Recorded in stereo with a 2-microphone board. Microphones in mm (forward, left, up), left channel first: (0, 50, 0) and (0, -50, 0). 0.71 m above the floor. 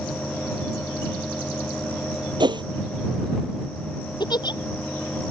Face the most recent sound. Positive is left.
turn(degrees=45)  # may be behind; listen again after turning